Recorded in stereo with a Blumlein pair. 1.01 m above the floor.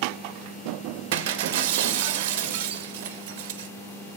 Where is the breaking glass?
50° right, 0.6 m.